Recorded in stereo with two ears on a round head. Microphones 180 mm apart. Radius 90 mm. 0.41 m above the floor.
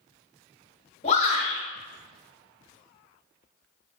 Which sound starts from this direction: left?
A shout, at 1.0 s.